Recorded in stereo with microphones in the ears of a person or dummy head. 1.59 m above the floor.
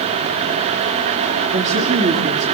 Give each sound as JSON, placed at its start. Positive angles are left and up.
{"t": 1.5, "sound": "a woman speaking", "side_deg": -35, "distance_m": 3.5}